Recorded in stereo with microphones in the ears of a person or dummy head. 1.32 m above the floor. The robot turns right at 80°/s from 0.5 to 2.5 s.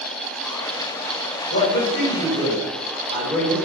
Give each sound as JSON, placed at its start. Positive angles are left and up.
{"t": 1.5, "sound": "a man speaking", "azimuth_deg": 100, "distance_m": 1.2}